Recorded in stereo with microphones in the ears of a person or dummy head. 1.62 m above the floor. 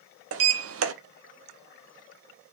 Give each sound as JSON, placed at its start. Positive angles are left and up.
{"t": 0.3, "sound": "a sliding door", "side_deg": -75, "distance_m": 0.6}